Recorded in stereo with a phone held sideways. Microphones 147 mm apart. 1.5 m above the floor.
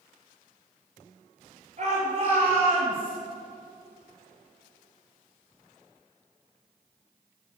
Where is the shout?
50° right (ahead or behind), 5.5 m; by 3.1 s 30° right (ahead or behind), 6 m.